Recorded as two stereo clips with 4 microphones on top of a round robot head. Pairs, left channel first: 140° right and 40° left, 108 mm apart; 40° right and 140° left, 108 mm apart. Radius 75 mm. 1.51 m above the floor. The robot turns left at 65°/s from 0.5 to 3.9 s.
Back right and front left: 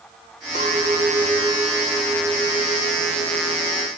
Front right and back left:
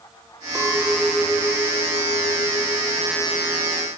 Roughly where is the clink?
Ahead left.